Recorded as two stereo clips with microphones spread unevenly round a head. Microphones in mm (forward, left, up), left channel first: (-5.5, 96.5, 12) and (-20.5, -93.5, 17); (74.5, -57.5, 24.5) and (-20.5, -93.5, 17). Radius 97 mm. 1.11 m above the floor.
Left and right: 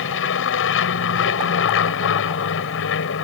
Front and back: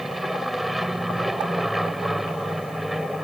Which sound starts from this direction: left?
An aircraft, at 0.0 s.